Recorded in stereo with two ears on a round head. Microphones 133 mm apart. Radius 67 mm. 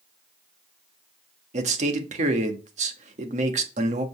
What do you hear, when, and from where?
1.5 s a man speaking: 50° right (ahead or behind), 1.6 m